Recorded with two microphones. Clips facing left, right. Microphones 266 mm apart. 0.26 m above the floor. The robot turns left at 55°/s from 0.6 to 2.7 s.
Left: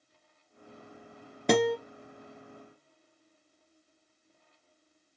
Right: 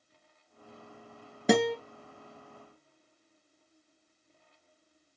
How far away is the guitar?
About 1.2 m.